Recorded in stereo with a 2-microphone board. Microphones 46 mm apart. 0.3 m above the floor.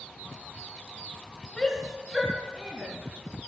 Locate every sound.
1.6 s a shout: 15° left (ahead or behind), 1.1 m; by 2.9 s 10° right (ahead or behind), 2 m